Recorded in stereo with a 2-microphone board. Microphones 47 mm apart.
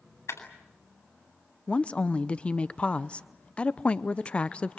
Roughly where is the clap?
Left.